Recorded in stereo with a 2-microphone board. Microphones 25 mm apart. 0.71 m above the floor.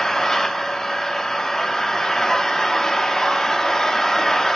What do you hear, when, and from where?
0.0 s an engine running: 20° left (ahead or behind), 1.1 m